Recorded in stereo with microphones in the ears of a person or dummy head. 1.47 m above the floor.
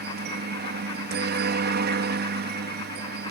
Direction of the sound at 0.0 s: 50° right (ahead or behind).